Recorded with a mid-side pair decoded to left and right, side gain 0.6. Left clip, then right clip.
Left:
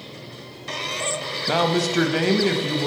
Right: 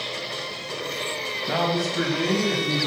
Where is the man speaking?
25° left, 1.1 m; by 2.9 s 70° left, 1.8 m.